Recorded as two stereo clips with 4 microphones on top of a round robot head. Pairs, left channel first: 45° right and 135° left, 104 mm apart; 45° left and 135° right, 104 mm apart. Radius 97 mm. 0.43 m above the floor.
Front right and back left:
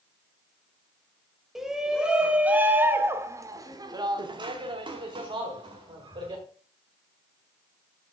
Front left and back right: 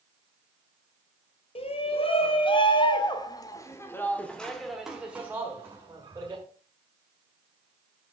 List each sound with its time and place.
1.6 s a shout: 50° left, 2 m; by 6.4 s 170° left, 2 m